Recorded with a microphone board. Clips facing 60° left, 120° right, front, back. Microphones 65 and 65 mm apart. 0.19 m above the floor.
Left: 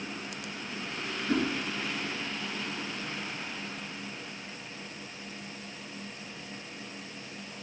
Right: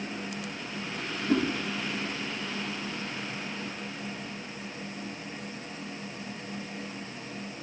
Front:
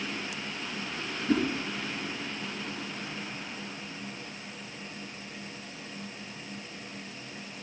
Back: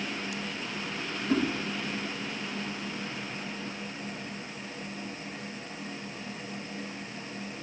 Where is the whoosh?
45° right, 3 m.